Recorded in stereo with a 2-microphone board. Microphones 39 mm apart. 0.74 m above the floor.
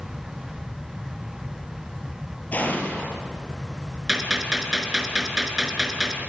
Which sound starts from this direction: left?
An explosion, at 2.5 s.